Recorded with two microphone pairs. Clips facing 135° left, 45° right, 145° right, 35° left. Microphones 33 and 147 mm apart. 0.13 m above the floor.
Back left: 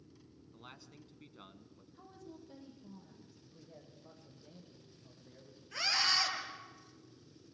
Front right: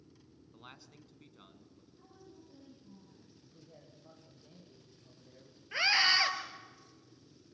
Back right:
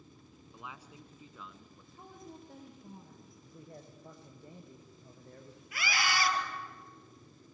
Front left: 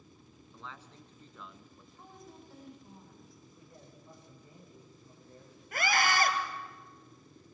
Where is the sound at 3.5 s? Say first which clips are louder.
Back left 1 dB, back right 4 dB; 140° right, 5 m.